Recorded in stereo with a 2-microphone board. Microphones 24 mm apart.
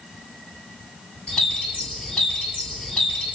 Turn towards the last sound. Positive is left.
turn(degrees=70)  # may be behind; listen again after turning